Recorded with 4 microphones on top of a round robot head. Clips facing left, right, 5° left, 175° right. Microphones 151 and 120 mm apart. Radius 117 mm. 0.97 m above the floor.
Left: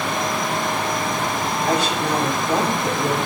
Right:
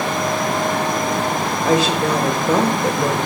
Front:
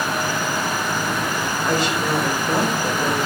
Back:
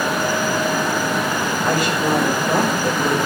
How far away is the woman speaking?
About 5 m.